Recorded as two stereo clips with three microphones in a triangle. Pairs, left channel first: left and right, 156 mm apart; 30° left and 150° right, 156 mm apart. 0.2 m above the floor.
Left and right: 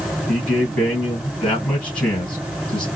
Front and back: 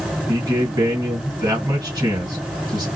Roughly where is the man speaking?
Behind.